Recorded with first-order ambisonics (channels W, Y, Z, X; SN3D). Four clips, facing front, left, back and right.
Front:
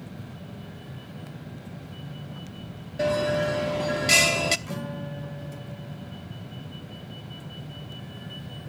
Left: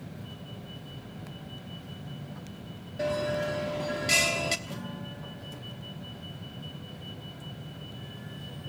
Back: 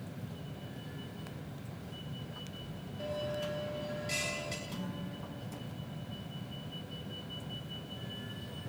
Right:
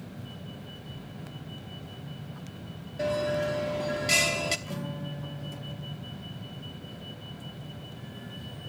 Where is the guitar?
10° right, 3 m.